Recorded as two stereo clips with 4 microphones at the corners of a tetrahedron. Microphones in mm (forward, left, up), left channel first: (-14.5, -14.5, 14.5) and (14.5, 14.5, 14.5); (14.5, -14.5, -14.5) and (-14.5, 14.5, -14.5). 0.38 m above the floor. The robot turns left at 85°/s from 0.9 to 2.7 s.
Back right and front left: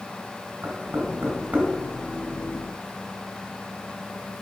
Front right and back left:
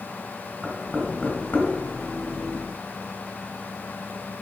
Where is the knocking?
50° left, 3 m; by 1.7 s 20° right, 3 m.